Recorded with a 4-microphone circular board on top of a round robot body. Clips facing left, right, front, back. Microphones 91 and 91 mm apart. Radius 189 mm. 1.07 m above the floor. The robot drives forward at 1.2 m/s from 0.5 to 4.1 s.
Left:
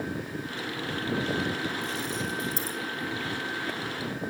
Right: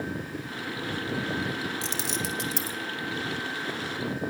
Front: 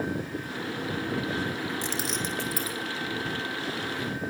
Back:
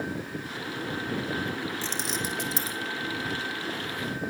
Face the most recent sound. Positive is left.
turn(degrees=-155)